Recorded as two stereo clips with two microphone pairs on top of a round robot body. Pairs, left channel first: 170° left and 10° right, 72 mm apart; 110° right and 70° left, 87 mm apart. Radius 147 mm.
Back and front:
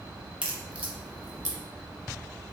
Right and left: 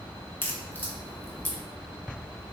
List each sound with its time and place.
0.4 s a crack: 60° right, 1.0 m